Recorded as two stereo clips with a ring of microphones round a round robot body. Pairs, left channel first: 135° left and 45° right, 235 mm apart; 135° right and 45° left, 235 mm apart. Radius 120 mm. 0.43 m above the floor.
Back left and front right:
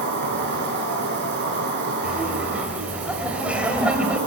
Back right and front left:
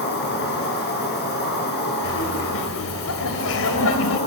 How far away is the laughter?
About 2.5 m.